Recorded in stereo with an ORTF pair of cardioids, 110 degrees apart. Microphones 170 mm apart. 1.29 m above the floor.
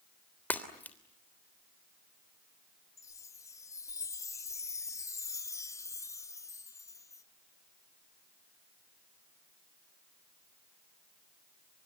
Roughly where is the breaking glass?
Ahead.